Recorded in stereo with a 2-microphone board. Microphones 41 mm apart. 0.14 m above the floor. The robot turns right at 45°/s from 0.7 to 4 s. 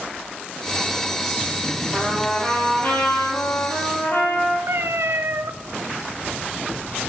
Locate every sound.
1.9 s a trumpet: 10° left, 3 m; by 4.6 s 105° left, 3 m
4.7 s a cat meowing: 70° right (ahead or behind), 0.5 m